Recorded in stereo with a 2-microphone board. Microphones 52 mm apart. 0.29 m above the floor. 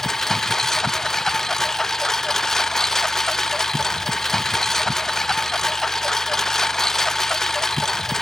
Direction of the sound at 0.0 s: 10° left (ahead or behind).